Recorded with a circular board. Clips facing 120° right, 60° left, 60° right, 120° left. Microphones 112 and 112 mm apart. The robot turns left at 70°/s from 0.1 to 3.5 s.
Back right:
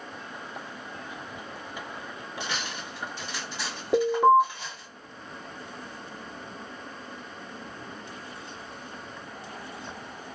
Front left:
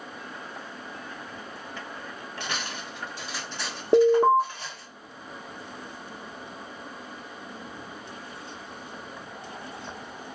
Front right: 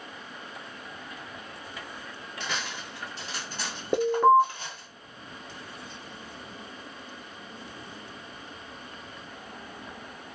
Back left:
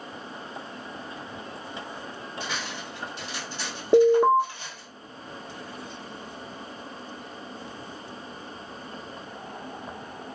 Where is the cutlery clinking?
45° left, 1.7 m; by 4.9 s 35° right, 1.7 m.